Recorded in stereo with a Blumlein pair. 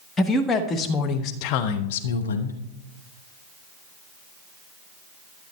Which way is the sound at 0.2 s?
15° left.